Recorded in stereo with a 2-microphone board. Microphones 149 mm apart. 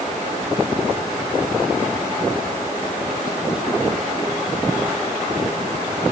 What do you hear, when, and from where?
Only background noise.